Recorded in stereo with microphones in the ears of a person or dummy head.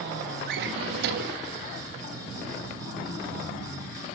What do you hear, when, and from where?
0.5 s a drawer: 60° right (ahead or behind), 1.8 m